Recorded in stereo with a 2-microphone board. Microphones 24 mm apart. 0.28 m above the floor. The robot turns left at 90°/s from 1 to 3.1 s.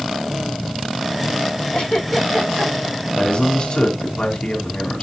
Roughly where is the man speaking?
Left.